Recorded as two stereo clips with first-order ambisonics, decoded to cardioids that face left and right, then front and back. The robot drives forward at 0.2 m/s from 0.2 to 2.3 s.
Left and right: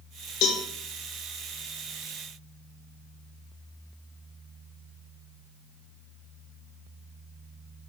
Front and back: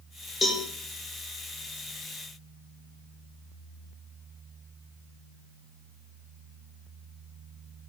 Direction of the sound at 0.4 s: 70° left.